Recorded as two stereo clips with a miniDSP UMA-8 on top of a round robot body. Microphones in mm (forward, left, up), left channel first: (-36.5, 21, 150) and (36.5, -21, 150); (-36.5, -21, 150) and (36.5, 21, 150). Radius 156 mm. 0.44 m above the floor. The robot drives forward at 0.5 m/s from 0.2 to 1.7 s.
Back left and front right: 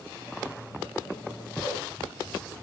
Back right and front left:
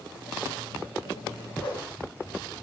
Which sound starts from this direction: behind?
A whoosh, at 1.6 s.